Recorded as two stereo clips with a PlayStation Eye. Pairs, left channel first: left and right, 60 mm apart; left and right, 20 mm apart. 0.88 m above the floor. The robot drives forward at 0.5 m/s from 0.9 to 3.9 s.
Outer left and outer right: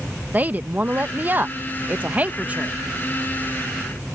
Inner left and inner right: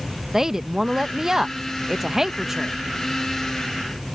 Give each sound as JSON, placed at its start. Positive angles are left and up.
{"t": 0.3, "sound": "a woman speaking", "side_deg": -30}